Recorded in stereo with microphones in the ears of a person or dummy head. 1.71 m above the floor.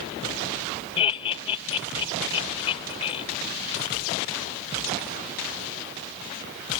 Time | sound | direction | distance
1.0 | laughter | 30° left (ahead or behind) | ?